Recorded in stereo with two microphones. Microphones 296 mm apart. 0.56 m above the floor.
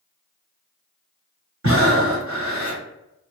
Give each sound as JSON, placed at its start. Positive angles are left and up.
{"t": 1.6, "sound": "breathing", "side_deg": -50, "distance_m": 0.8}